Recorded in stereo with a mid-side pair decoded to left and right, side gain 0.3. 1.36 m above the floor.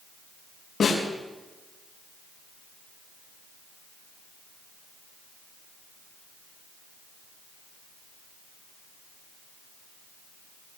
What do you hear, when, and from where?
0.8 s a snare drum: 65° left, 6.5 m